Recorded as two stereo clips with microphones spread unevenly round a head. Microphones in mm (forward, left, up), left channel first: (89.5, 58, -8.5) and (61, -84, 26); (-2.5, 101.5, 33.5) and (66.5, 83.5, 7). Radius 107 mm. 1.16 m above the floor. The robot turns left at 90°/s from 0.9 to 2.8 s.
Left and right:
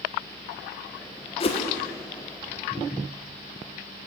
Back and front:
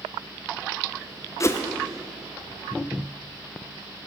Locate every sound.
1.4 s a whoosh: 110° left, 1.0 m; by 1.6 s 90° left, 1.0 m